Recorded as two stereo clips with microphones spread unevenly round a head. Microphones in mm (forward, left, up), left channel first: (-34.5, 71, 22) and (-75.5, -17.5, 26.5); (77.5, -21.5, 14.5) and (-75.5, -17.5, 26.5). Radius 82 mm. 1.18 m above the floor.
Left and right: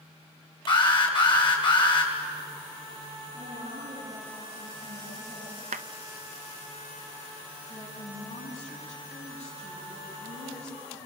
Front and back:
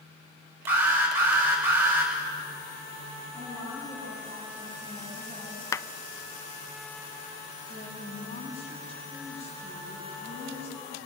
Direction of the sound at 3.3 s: 95° right.